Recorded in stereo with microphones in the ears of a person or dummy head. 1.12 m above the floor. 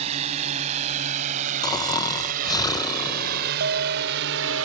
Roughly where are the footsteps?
I don't hear footsteps.